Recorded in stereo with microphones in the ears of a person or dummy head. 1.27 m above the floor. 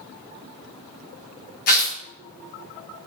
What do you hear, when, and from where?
1.7 s tearing paper: 60° left (ahead or behind), 1.7 m